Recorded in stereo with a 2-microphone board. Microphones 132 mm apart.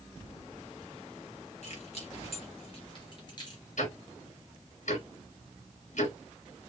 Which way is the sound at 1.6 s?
55° left (ahead or behind).